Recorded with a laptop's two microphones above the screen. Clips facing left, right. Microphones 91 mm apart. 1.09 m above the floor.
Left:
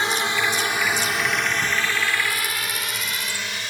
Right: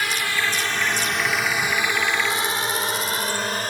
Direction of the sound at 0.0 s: 30° left (ahead or behind).